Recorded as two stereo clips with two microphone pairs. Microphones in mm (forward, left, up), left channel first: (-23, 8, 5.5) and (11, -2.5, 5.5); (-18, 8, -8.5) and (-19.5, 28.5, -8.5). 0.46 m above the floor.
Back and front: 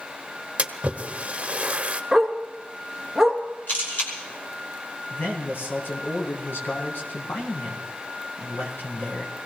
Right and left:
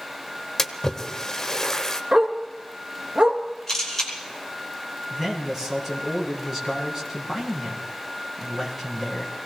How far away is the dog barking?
About 2.5 m.